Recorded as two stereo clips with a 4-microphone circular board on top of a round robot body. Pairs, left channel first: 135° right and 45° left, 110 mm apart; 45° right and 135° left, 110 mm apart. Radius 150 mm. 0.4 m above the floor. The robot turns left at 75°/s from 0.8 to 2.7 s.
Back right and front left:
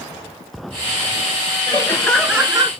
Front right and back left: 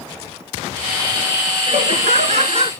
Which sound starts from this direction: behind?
Laughter, at 1.7 s.